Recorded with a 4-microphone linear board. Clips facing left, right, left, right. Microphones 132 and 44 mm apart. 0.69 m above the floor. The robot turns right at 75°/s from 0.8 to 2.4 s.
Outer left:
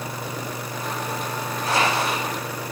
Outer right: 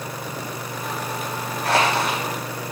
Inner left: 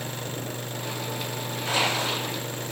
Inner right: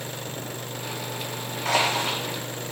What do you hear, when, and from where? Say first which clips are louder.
1.6 s crushing: outer right 2 dB, inner right 2 dB; 85° right, 5.5 m; by 2.2 s 45° right, 5.5 m